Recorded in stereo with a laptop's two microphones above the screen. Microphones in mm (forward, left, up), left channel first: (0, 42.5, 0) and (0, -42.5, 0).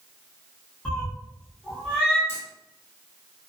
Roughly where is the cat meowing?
Centre.